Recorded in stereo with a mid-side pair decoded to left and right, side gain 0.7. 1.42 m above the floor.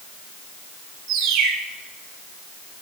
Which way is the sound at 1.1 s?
60° right.